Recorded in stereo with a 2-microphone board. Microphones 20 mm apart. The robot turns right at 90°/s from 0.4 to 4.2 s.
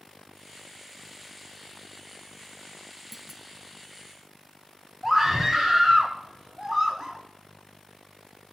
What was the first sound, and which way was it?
A clunk, 5° right (ahead or behind).